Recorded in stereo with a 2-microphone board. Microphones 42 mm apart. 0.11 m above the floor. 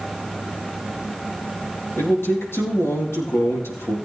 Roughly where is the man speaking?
Left.